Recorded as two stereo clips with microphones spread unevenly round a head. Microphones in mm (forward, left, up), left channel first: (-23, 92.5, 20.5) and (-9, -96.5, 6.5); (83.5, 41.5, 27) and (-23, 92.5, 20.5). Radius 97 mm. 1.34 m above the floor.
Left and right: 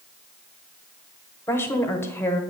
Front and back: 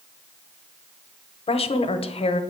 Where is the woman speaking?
15° left, 0.8 m.